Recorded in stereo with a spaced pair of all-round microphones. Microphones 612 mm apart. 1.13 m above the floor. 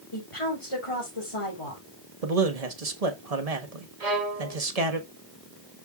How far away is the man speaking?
About 1.4 m.